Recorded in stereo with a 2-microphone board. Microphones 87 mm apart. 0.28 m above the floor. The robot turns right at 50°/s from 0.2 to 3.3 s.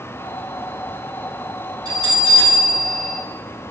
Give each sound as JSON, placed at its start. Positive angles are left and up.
{"t": 1.9, "sound": "a bell", "azimuth_deg": -55, "distance_m": 1.7}